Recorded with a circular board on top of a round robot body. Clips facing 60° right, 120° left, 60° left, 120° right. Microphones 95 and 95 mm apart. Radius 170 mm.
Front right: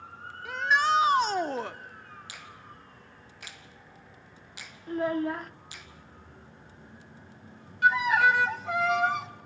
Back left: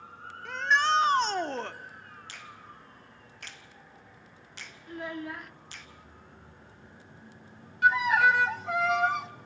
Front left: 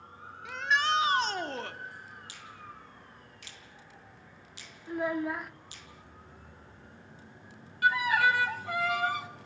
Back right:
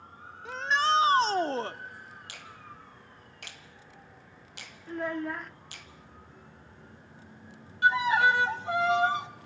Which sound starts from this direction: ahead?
A child speaking, at 4.9 s.